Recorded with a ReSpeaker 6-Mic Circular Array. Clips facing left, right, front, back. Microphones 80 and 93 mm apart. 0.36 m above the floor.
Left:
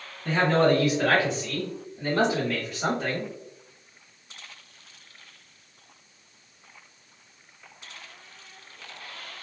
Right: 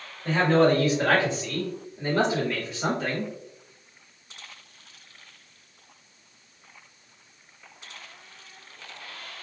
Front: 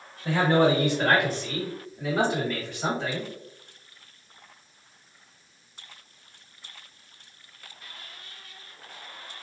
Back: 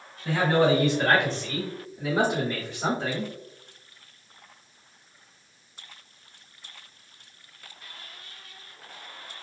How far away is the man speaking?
About 1.9 m.